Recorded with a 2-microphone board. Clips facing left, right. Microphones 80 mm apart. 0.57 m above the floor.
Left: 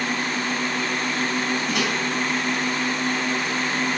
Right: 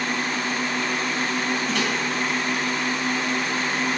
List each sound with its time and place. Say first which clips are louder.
1.7 s a microwave: even; 15° left (ahead or behind), 4.5 m